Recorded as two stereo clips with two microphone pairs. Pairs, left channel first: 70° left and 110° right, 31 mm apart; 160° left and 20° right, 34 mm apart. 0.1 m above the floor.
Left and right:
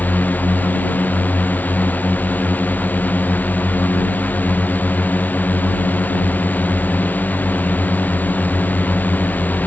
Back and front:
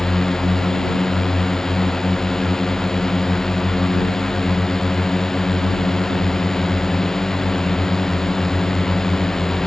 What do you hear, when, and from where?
0.0 s a drone: 80° left